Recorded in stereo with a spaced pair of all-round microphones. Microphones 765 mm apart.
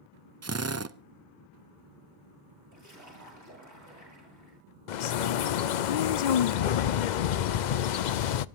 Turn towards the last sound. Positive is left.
turn(degrees=70)  # may be behind; listen again after turning